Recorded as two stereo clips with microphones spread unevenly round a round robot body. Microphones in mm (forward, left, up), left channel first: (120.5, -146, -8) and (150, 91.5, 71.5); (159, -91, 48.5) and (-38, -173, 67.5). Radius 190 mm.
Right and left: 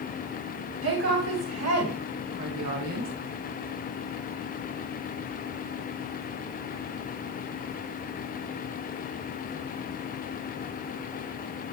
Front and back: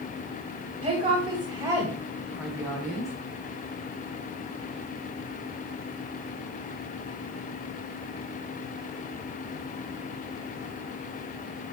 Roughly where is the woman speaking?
Behind left.